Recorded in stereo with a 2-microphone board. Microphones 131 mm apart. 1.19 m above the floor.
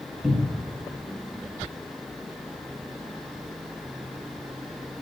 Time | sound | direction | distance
0.2 | a cupboard door | 5° left (ahead or behind) | 1.9 m